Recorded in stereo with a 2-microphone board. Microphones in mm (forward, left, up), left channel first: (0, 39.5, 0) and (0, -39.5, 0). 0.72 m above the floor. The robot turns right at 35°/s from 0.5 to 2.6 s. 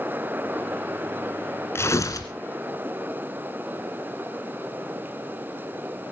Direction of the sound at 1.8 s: 30° left (ahead or behind).